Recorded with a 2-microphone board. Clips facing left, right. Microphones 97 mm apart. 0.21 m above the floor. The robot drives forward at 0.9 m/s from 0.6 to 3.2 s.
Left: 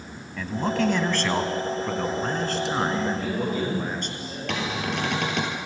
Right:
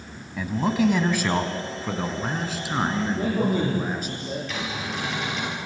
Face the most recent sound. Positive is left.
turn(degrees=65)  # may be behind; listen again after turning